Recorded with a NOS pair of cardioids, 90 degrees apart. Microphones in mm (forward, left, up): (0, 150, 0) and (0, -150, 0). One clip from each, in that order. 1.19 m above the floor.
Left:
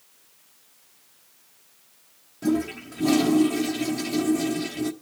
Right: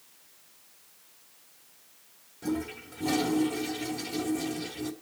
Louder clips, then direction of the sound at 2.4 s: Left 8 dB; 35° left.